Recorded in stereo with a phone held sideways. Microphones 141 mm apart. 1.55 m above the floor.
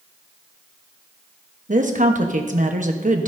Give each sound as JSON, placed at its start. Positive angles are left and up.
{"t": 1.7, "sound": "a woman speaking", "side_deg": -65, "distance_m": 1.0}